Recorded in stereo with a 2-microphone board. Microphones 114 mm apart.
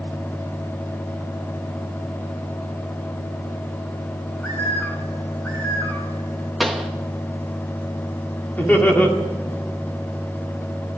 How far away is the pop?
About 1.1 m.